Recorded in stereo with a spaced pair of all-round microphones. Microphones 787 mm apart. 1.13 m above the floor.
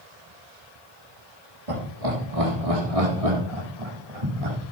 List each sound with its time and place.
1.7 s laughter: 45° right (ahead or behind), 3 m; by 4.6 s 50° right (ahead or behind), 4 m